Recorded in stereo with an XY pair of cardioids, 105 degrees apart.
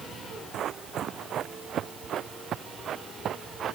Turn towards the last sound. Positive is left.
turn(degrees=-55)